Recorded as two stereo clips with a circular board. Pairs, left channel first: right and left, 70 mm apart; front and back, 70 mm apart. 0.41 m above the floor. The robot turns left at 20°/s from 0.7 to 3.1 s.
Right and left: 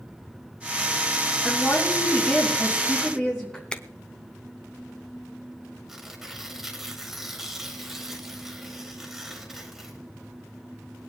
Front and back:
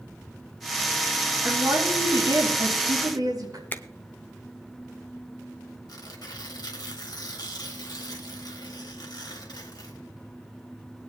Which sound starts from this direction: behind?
A woman speaking, at 1.4 s.